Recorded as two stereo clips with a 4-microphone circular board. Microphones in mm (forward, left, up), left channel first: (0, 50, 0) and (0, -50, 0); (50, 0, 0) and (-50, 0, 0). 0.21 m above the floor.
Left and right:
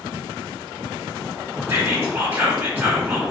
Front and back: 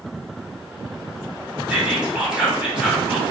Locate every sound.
1.7 s whispering: 115° right, 1.4 m